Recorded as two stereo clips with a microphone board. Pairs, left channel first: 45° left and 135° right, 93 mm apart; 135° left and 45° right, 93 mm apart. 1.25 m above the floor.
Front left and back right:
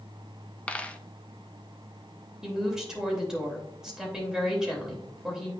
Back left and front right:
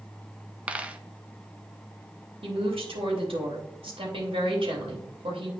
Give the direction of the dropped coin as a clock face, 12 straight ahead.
12 o'clock.